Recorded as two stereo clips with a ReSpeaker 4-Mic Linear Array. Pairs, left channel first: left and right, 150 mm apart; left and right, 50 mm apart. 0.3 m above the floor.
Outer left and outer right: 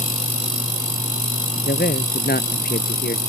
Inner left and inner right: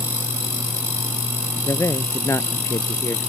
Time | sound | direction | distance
1.7 | a man speaking | 80° left | ?